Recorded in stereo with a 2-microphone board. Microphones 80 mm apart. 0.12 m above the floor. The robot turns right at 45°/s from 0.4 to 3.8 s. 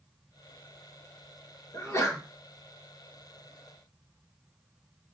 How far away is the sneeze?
About 1.8 m.